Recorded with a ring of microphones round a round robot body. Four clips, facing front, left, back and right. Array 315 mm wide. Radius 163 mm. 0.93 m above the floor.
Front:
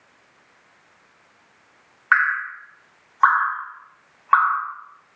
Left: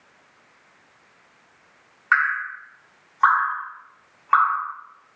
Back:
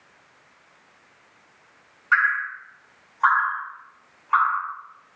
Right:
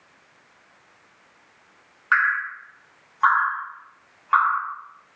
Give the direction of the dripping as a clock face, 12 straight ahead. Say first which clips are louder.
Even, front 2 dB; 12 o'clock.